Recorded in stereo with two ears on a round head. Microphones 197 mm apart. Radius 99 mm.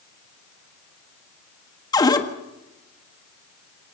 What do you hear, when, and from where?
1.9 s a cupboard door: 20° left (ahead or behind), 1.6 m